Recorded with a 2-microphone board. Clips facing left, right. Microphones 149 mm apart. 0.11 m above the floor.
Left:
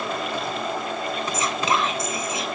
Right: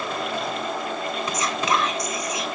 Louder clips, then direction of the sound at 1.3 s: Even; 25° left (ahead or behind).